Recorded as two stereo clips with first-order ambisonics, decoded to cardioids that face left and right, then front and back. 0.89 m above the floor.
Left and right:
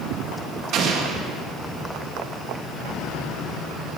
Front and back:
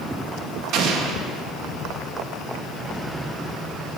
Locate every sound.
0.7 s an explosion: 140° right, 0.6 m